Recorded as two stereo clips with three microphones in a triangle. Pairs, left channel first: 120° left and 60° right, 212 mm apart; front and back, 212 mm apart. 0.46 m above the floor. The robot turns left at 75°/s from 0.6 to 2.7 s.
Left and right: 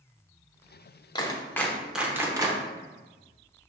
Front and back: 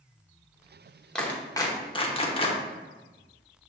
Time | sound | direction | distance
1.1 | a clap | 80° left | 0.7 m